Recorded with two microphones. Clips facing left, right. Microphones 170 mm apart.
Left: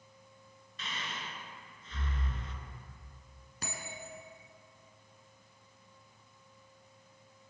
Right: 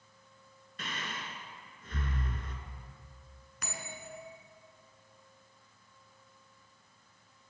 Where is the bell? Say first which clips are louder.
Even; 30° left (ahead or behind), 1.9 m.